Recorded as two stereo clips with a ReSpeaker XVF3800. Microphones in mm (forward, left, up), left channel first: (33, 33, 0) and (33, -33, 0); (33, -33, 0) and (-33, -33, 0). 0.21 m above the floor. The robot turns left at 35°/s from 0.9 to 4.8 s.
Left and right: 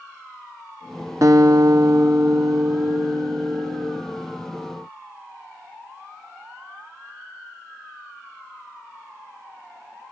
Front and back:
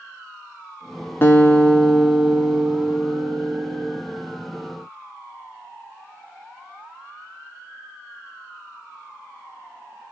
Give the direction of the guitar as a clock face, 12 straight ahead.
2 o'clock.